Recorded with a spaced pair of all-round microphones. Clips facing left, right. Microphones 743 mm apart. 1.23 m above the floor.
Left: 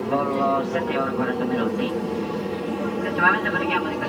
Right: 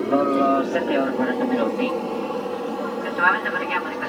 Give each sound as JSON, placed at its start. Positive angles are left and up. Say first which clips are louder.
{"t": 0.0, "sound": "an aircraft", "louder": "right 4 dB", "side_deg": 30}